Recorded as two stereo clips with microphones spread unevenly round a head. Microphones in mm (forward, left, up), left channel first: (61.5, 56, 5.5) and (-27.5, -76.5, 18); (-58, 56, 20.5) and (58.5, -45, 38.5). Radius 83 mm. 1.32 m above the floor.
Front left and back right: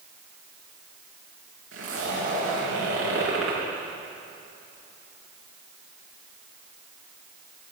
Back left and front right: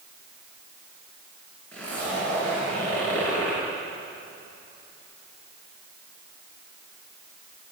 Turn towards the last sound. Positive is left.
turn(degrees=-135)